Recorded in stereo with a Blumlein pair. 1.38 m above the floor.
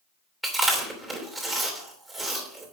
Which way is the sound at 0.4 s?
10° right.